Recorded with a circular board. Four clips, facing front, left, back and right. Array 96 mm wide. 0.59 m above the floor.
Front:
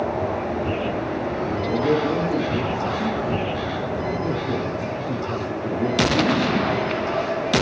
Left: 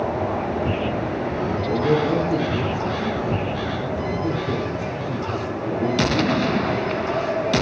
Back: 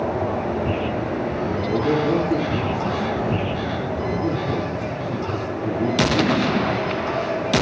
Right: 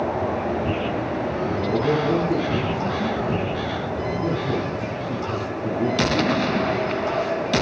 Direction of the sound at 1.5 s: 75° right.